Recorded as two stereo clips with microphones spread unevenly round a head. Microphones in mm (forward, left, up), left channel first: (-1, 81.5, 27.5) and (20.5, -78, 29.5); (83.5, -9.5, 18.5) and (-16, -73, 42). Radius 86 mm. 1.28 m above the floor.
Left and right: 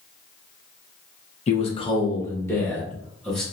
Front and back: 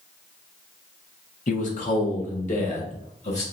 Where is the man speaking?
50° left, 1.0 m; by 3.4 s 10° left, 1.9 m.